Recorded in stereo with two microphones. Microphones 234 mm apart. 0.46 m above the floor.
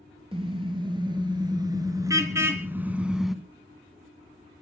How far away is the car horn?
About 4 m.